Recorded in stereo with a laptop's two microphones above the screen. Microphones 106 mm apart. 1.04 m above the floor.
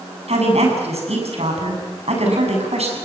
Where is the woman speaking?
85° right, 7.5 m.